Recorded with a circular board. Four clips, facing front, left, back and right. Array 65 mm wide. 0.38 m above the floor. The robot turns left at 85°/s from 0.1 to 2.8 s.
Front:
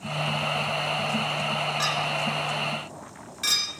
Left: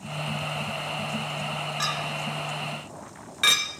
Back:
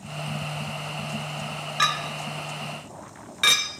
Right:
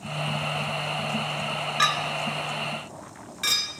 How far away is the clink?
About 0.7 m.